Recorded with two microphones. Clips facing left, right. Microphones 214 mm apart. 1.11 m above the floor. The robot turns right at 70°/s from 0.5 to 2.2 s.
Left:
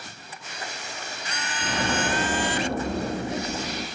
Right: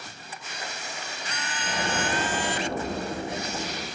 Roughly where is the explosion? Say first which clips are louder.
Left 3 dB; left.